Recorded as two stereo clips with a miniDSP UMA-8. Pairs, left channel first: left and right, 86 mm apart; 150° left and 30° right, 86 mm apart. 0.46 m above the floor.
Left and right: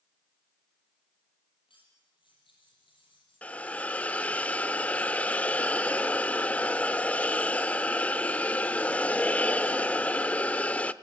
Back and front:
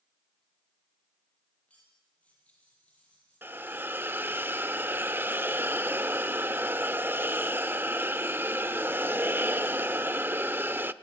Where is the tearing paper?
No tearing paper in this recording.